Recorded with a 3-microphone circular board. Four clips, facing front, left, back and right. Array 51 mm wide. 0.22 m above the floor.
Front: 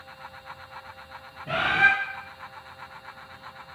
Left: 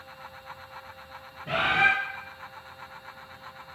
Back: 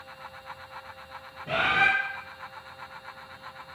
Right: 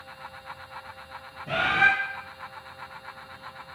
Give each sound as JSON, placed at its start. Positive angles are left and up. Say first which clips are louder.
{"t": 1.5, "sound": "a bird", "louder": "right 1 dB, front 2 dB", "azimuth_deg": 75, "distance_m": 1.4}